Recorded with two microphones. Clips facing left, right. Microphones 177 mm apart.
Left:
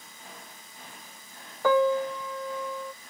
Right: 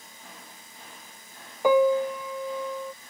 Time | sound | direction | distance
1.6 | a piano | 15° right (ahead or behind) | ?